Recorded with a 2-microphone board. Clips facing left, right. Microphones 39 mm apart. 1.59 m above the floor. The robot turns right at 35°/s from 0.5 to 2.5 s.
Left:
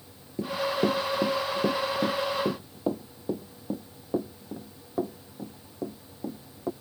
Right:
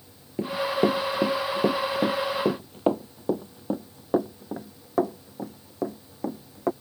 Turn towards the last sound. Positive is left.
turn(degrees=-70)  # may be behind; listen again after turning